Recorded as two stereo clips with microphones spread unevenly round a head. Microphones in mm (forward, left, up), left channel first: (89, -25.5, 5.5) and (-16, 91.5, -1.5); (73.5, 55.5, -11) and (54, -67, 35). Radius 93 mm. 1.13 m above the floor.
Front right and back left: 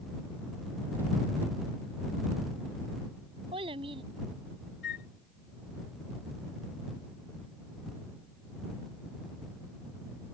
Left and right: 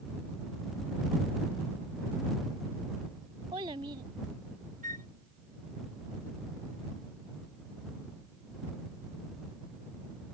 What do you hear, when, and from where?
3.5 s a child speaking: 165° right
4.8 s a flute: 85° right